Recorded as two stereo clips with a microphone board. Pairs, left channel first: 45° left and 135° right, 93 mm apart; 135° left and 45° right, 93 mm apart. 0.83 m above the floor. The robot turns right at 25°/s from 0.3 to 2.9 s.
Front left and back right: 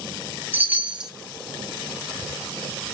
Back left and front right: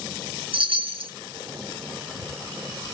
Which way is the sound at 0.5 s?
65° right.